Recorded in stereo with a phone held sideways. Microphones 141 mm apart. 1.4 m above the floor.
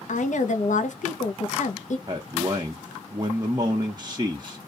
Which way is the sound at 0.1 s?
65° left (ahead or behind).